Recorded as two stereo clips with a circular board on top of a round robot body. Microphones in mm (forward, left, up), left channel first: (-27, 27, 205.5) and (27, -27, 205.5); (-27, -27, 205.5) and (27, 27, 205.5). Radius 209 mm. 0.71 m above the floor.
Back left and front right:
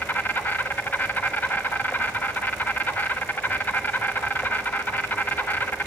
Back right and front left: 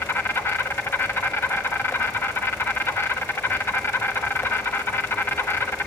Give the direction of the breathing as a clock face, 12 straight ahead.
No breathing in this recording.